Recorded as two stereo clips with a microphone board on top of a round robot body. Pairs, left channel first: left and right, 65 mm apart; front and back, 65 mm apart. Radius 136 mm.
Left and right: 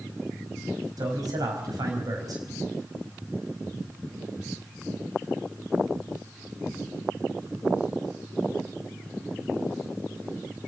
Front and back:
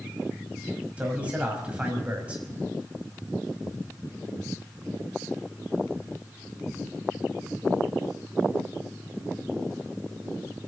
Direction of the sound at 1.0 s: 105° right.